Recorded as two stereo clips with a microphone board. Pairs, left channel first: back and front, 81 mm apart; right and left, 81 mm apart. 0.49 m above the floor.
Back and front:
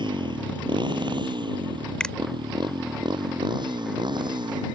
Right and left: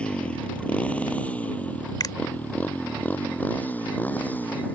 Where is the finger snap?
100° right.